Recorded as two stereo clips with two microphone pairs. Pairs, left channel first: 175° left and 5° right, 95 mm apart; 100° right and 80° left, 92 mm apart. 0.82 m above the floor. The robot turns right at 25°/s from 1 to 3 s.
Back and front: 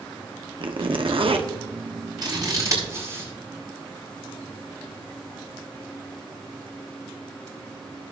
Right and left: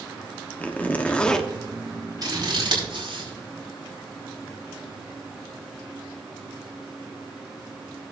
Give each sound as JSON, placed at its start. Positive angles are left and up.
{"t": 0.6, "sound": "a zipper", "azimuth_deg": -30, "distance_m": 1.1}
{"t": 2.2, "sound": "scissors", "azimuth_deg": 35, "distance_m": 4.5}